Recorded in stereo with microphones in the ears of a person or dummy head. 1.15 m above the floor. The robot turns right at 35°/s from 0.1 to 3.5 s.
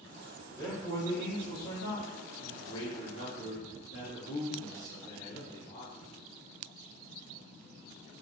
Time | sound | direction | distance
0.5 | a man speaking | 10° left | 1.9 m